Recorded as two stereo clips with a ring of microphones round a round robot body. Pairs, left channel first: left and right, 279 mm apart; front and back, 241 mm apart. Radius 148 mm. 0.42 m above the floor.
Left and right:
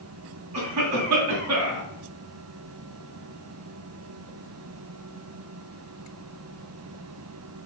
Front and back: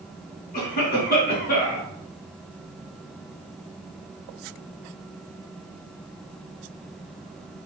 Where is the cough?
60° right, 4.5 m.